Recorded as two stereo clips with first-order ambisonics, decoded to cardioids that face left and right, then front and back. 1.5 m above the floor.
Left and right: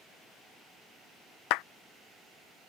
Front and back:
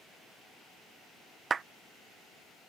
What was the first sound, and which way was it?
A clap, 110° left.